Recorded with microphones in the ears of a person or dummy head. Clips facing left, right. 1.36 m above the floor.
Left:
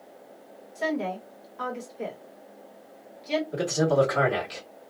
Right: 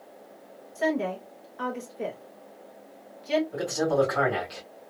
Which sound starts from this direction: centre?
A woman speaking, at 0.8 s.